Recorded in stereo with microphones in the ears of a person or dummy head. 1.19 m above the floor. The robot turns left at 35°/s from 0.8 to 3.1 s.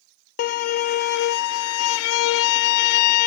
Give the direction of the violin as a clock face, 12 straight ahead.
8 o'clock.